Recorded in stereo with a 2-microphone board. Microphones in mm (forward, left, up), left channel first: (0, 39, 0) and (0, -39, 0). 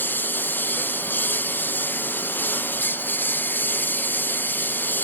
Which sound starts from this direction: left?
A lawn mower, at 0.0 s.